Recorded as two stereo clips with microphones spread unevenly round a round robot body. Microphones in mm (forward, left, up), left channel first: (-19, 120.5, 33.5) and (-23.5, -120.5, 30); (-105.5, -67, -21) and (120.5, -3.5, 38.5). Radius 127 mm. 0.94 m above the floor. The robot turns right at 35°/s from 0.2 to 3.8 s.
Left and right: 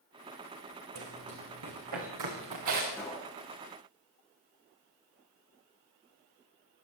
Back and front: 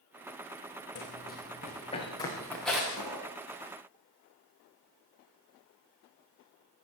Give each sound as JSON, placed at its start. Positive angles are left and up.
{"t": 0.9, "sound": "running footsteps", "azimuth_deg": -120, "distance_m": 5.5}
{"t": 2.9, "sound": "a pop", "azimuth_deg": 5, "distance_m": 7.0}